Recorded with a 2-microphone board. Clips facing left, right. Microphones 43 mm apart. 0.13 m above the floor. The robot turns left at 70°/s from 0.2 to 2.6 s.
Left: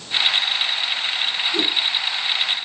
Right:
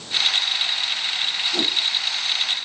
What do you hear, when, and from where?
1.5 s a whoosh: 55° right (ahead or behind), 2 m; by 1.7 s 40° right (ahead or behind), 2 m